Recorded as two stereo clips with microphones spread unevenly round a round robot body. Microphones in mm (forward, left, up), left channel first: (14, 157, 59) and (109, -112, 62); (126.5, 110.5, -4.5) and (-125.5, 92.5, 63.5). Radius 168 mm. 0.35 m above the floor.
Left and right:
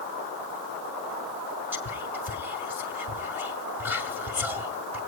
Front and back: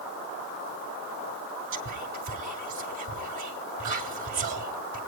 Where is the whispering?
155° right, 3 m.